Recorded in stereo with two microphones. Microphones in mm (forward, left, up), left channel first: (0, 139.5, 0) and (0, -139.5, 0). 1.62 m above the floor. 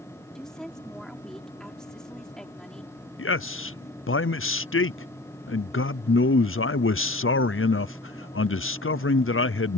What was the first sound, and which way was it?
A woman speaking, centre (ahead or behind).